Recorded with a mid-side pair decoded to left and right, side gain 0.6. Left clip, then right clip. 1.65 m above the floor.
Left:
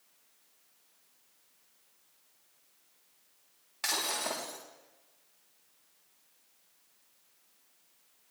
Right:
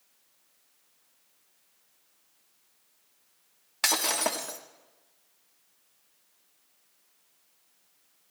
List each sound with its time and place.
3.8 s breaking glass: 50° right, 2.5 m